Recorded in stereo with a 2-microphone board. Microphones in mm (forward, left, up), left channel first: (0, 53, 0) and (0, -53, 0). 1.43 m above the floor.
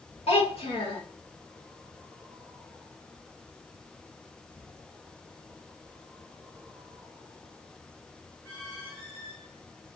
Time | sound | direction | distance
0.3 | a child speaking | 75° left (ahead or behind) | 1.6 m